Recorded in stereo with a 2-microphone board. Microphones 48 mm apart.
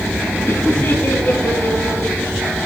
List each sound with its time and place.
0.5 s laughter: 45° left (ahead or behind), 6.5 m; by 2.6 s 40° left (ahead or behind), 9 m